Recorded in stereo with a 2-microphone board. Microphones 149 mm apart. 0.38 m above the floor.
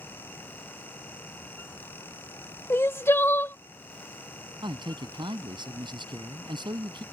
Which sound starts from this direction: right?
A man speaking, at 4.6 s.